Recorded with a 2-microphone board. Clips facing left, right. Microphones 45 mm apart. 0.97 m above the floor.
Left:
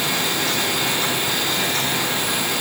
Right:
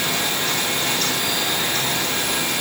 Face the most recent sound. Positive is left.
No sound to turn to.